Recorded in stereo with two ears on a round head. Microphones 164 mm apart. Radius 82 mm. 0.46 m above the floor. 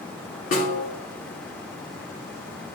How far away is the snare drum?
About 1.7 m.